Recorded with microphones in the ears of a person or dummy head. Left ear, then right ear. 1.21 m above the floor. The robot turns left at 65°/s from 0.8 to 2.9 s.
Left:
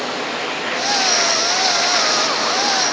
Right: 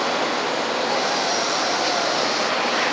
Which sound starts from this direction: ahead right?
Running water, at 0.0 s.